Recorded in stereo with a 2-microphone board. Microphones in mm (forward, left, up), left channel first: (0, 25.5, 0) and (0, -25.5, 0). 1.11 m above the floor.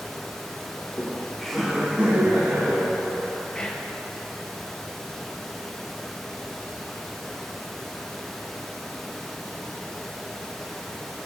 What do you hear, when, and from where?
0.8 s laughter: 35° left (ahead or behind), 0.8 m; by 3.4 s 65° right (ahead or behind), 1.3 m
3.5 s whispering: 20° left (ahead or behind), 0.6 m